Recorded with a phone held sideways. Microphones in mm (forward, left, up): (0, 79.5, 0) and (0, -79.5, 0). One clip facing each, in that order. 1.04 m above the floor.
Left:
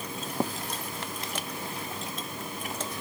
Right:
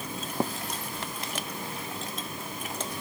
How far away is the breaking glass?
No breaking glass in this recording.